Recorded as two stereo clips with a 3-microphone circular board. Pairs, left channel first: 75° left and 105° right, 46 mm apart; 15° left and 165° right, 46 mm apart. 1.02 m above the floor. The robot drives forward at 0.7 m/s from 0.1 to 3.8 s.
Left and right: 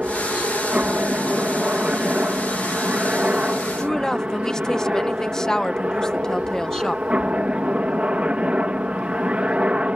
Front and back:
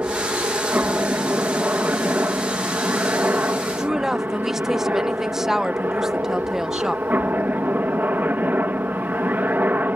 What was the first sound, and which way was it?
A helicopter, 150° right.